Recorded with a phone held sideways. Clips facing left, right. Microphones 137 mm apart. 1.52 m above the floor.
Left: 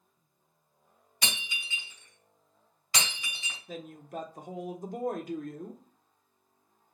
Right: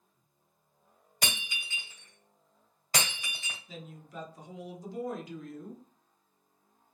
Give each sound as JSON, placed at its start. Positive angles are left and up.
{"t": 1.2, "sound": "breaking glass", "side_deg": -45, "distance_m": 1.8}
{"t": 3.7, "sound": "a woman speaking", "side_deg": 50, "distance_m": 0.9}